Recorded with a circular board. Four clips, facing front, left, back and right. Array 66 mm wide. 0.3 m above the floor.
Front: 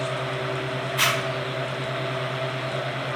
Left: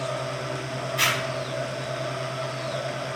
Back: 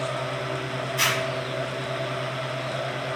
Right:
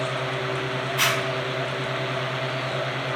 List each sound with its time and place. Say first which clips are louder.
1.0 s a zipper: right 1 dB, front 1 dB; 15° right, 1.4 m